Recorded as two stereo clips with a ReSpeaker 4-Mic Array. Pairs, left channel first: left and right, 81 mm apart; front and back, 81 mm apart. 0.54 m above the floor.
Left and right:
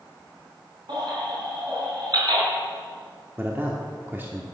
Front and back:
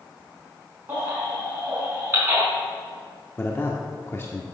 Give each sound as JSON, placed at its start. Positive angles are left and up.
{"t": 0.9, "sound": "a baby crying", "azimuth_deg": -115, "distance_m": 4.0}
{"t": 3.4, "sound": "a man speaking", "azimuth_deg": -45, "distance_m": 1.0}